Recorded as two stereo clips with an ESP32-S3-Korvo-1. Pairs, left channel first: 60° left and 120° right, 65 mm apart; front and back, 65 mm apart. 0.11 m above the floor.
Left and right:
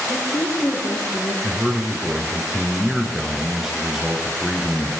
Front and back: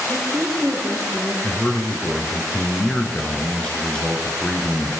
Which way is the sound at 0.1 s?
100° left.